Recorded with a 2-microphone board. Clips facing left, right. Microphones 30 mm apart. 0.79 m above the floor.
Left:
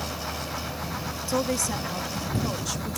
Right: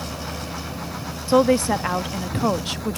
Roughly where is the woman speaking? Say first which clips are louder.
Right 10 dB; right.